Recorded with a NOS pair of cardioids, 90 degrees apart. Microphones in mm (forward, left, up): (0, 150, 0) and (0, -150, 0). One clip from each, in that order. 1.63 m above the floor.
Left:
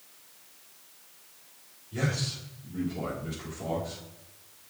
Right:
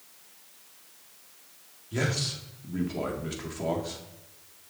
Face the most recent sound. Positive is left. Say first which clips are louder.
# right 3 dB
turn(degrees=-50)